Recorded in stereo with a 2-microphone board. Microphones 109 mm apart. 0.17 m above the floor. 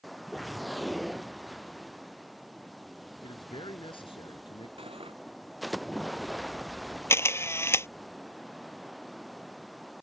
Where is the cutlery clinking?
60° right (ahead or behind).